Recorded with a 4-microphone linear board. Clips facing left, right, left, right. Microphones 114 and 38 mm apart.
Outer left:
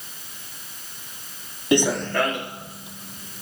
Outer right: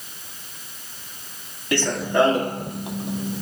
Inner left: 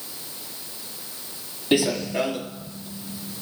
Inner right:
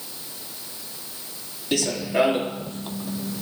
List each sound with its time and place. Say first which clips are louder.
1.7 s running footsteps: outer left 1 dB, inner left 1 dB; 20° left (ahead or behind), 0.5 m; by 3.4 s 70° right (ahead or behind), 1.2 m